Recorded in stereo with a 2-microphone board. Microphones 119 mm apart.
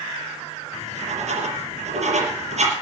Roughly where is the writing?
Right.